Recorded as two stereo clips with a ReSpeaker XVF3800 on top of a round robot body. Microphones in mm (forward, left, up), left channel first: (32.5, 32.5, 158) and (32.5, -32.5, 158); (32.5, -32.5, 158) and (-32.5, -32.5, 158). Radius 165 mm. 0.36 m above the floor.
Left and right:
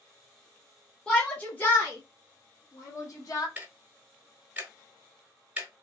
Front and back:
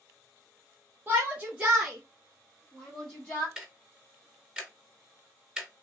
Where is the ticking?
125° right, 1.4 m.